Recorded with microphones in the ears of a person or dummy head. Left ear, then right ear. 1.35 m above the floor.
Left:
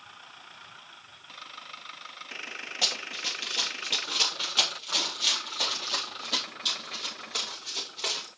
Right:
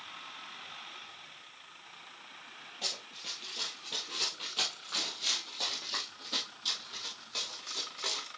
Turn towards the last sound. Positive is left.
turn(degrees=5)  # may be behind; listen again after turning